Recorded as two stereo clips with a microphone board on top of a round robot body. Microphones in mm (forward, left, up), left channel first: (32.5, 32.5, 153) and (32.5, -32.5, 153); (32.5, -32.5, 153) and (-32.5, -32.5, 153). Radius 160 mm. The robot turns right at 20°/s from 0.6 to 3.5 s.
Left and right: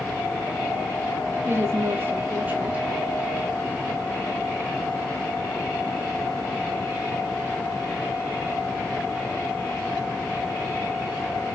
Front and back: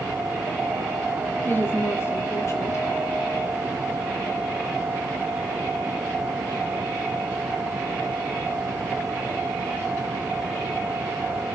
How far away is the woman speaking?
About 1.5 m.